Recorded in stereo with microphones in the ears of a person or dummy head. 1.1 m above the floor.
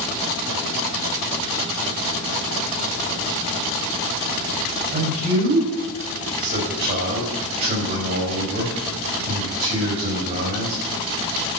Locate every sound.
4.9 s a man speaking: 40° right (ahead or behind), 5.5 m